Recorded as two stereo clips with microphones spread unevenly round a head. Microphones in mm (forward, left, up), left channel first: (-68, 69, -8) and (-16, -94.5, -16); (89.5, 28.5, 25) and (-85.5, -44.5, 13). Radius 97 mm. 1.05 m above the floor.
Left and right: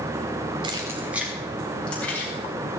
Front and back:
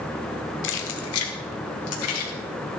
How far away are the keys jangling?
About 1.6 m.